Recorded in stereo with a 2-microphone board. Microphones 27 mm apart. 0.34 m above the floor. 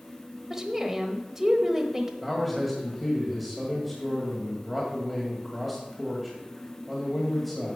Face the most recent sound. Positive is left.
turn(degrees=-5)  # may be behind; listen again after turning